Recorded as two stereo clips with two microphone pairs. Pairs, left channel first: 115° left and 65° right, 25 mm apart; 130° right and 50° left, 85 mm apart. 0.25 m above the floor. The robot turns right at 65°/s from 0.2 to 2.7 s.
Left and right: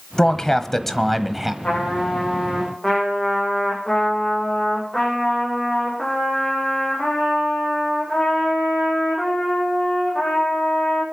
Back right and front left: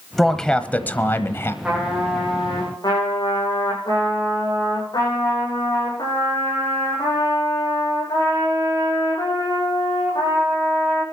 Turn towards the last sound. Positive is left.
turn(degrees=-160)